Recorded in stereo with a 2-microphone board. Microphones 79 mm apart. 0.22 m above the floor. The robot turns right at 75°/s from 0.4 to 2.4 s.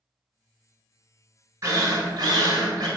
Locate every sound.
1.6 s a drill: 135° right, 0.8 m; by 2.9 s 75° right, 0.8 m